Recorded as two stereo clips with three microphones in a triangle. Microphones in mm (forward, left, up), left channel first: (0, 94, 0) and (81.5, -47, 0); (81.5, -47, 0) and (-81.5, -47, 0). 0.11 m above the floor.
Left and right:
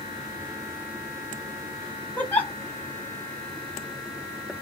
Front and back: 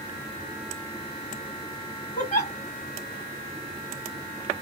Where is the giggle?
40° left, 1.4 m.